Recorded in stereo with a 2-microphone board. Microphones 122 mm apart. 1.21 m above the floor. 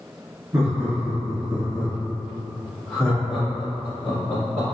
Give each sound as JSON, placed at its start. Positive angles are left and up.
{"t": 0.5, "sound": "laughter", "side_deg": -25, "distance_m": 1.4}